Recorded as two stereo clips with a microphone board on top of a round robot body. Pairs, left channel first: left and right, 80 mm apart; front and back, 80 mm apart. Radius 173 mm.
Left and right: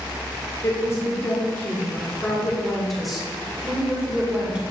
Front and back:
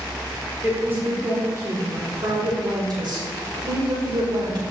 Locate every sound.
0.6 s a woman speaking: 115° left, 1.8 m; by 4.6 s 165° right, 3 m